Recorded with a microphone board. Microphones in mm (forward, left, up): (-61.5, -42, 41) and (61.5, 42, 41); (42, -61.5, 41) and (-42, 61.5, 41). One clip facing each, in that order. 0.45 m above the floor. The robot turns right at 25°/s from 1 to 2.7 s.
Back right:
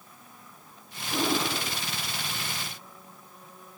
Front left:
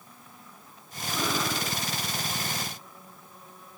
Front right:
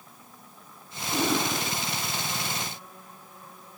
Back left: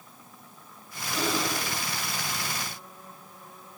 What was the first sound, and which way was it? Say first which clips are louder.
Breathing: back right 2 dB, front right 3 dB; 95° right.